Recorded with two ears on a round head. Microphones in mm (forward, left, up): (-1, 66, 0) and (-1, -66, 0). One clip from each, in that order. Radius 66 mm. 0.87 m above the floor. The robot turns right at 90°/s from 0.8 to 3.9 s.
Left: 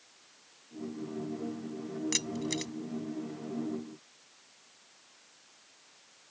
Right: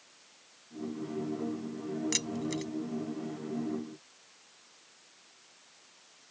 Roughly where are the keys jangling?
Centre.